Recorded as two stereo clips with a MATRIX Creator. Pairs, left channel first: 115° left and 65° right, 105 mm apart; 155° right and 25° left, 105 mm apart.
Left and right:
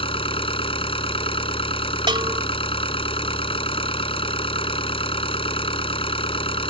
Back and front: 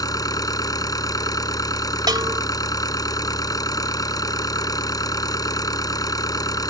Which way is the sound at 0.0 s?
145° left.